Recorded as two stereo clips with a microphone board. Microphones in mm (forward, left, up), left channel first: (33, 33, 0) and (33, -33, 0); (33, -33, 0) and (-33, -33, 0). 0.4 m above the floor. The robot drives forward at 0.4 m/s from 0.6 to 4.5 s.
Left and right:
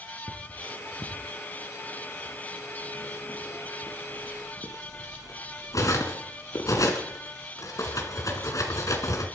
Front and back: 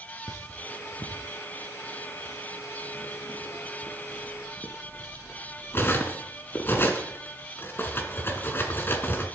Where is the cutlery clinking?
35° left, 3.5 m; by 9.2 s 55° left, 2.5 m.